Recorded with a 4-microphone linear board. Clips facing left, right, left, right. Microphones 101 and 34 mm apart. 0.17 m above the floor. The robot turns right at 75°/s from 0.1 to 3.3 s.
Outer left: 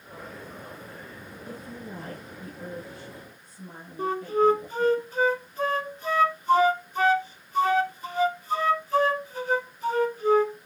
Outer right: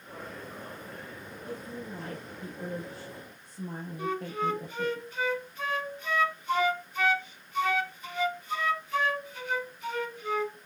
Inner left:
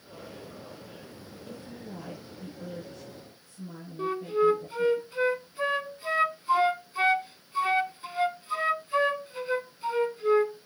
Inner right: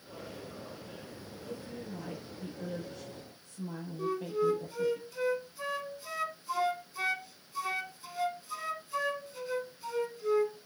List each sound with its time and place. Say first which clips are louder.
1.5 s a woman speaking: outer right 1 dB, inner right 1 dB; 105° left, 5 m; by 5.0 s 120° right, 5 m
4.0 s a flute: outer left 9 dB, inner left 6 dB; 35° left (ahead or behind), 0.7 m